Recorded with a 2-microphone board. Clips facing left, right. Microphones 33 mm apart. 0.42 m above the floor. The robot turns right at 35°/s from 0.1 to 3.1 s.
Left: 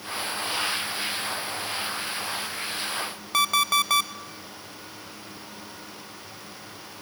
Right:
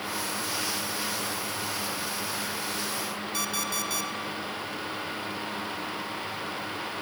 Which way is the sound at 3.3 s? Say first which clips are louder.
Left 12 dB; 65° left (ahead or behind).